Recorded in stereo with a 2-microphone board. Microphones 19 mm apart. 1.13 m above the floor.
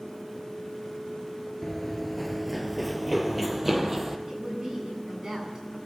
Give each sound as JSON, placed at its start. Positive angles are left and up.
{"t": 1.6, "sound": "running footsteps", "side_deg": 20, "distance_m": 1.2}
{"t": 4.3, "sound": "a woman speaking", "side_deg": -30, "distance_m": 9.0}